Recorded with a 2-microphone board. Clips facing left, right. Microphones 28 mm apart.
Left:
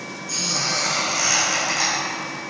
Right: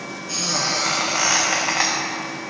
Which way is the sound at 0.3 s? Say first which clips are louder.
Right 1 dB; 35° right (ahead or behind).